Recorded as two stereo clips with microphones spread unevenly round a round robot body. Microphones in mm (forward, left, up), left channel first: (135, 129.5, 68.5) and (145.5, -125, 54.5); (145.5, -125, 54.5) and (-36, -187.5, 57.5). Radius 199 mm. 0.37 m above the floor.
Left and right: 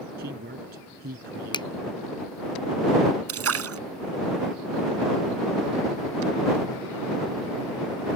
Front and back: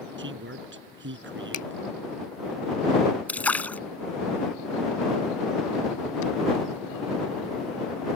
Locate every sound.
0.2 s a man speaking: 150° right
1.5 s a finger snap: 20° left
3.3 s a splash: 65° right